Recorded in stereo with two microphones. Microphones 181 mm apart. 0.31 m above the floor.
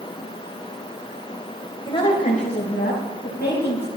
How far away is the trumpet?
I don't hear a trumpet.